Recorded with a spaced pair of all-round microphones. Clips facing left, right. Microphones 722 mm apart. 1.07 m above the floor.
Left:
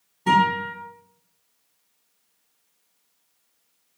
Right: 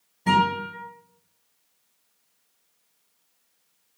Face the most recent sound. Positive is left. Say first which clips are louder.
# left 1 dB
turn(degrees=-10)  # may be behind; listen again after turning